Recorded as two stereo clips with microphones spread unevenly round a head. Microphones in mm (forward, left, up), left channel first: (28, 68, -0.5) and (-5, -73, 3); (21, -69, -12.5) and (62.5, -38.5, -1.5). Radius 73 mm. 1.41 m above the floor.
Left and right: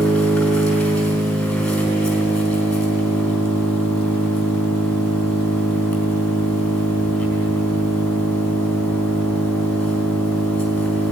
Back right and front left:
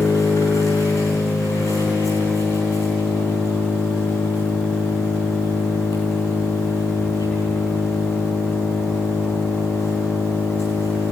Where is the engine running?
160° left, 4 m.